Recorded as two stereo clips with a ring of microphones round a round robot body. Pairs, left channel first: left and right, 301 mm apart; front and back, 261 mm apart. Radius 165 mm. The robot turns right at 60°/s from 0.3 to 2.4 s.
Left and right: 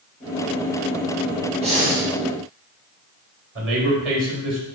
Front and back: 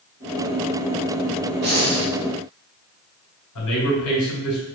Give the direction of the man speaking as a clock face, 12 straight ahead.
1 o'clock.